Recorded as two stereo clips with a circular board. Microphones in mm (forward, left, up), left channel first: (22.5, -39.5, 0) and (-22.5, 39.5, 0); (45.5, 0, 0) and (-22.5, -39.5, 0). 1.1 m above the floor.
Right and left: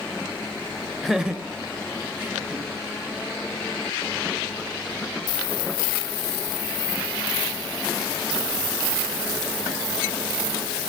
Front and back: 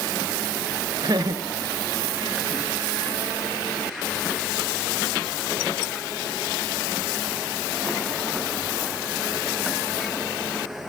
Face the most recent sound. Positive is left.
turn(degrees=180)